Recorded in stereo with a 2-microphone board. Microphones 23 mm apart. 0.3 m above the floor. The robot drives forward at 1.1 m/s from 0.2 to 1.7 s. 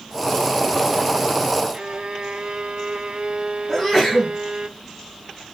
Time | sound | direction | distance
1.7 | a violin | 45° right (ahead or behind) | 0.8 m
3.7 | a sneeze | 15° left (ahead or behind) | 3.5 m